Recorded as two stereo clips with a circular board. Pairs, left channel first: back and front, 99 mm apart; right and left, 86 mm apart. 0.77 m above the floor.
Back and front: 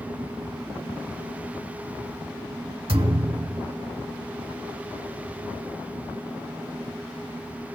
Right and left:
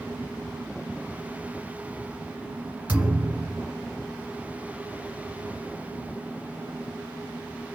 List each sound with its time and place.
2.9 s a thud: 20° left, 2.0 m